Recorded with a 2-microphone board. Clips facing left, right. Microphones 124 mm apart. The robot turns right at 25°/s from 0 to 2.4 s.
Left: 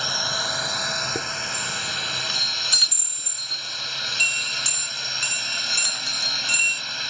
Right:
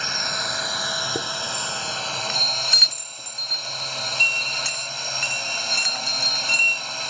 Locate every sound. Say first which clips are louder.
0.0 s a drone: left 1 dB; 165° left; by 7.1 s 135° right
1.1 s a chime: right 2 dB; 10° right (ahead or behind); by 6.8 s 15° left (ahead or behind)